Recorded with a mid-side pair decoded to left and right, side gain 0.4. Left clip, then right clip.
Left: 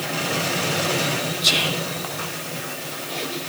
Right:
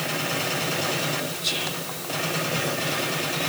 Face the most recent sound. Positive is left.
turn(degrees=70)